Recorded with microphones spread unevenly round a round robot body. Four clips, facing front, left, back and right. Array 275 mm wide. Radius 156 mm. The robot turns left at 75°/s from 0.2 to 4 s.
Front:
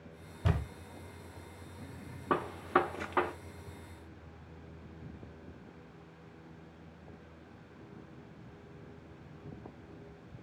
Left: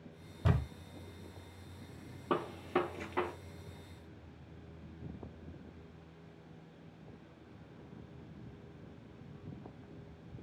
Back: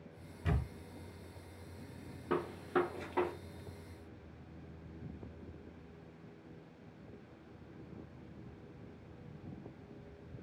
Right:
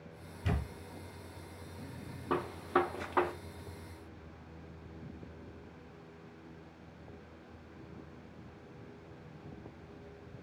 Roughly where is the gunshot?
Ahead.